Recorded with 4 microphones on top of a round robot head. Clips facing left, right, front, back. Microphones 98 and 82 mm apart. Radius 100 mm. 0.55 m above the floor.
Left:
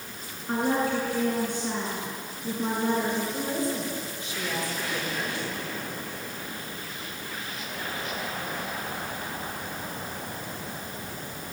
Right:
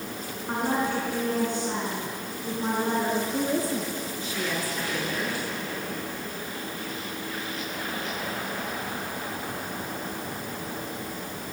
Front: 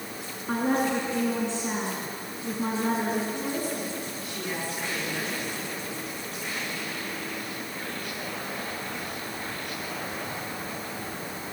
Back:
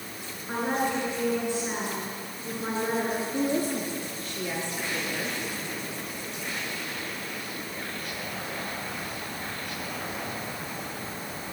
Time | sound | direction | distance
0.5 | a woman speaking | 20° right | 6 m
3.3 | a woman speaking | 85° right | 7.5 m